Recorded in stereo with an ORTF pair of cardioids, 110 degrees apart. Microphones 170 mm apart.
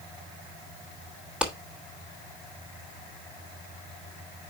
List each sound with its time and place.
1.4 s a clap: 5° right, 2 m